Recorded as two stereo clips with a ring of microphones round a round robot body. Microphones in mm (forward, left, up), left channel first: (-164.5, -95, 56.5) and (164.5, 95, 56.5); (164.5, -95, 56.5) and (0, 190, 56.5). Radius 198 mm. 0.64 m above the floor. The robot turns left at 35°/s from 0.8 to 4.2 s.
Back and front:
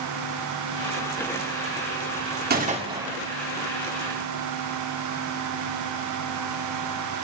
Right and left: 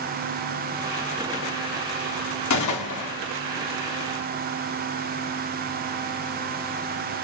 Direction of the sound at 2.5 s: 35° right.